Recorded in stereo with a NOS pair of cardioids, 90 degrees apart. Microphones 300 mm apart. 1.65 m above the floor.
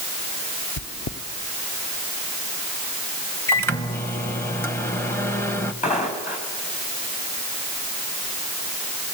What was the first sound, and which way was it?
Chewing, 35° left.